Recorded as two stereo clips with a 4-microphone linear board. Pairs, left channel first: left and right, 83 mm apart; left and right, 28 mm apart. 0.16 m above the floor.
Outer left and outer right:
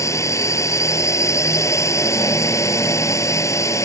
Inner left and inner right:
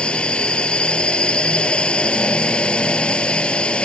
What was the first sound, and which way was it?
A drone, 40° left (ahead or behind).